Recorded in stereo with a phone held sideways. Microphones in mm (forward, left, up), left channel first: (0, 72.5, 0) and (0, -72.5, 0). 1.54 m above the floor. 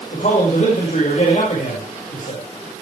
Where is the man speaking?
60° left (ahead or behind), 6 m.